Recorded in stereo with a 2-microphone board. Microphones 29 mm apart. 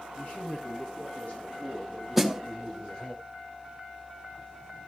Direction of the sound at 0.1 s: 65° left (ahead or behind).